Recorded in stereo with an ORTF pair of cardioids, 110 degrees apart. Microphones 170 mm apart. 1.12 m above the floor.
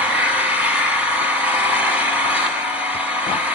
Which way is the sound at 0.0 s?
10° right.